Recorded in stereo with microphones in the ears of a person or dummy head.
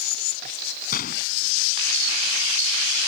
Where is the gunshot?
55° left (ahead or behind).